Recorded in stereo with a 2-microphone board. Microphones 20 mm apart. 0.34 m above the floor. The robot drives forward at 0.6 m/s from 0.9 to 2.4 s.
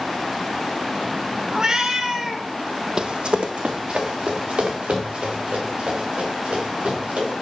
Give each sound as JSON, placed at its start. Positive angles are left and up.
{"t": 1.5, "sound": "a cat meowing", "side_deg": -40, "distance_m": 0.7}
{"t": 3.0, "sound": "running footsteps", "side_deg": -40, "distance_m": 0.5}